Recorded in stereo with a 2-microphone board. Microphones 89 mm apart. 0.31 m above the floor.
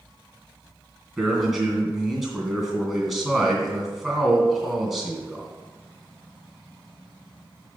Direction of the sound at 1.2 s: Centre (ahead or behind).